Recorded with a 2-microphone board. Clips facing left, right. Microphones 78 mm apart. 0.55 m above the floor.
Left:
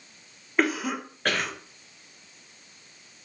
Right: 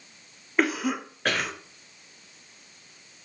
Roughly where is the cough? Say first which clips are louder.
Even; centre.